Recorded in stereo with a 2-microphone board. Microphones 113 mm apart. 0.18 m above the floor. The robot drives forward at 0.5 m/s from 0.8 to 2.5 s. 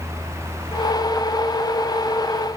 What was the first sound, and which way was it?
Only background noise.